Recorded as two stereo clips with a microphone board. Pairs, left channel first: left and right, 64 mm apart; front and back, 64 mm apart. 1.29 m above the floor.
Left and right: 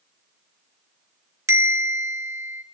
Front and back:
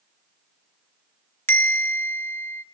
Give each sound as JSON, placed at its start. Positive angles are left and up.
{"t": 1.5, "sound": "a bell", "azimuth_deg": -50, "distance_m": 1.0}